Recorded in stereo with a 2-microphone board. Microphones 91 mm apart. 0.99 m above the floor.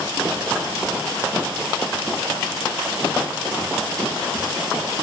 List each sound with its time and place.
Only background noise.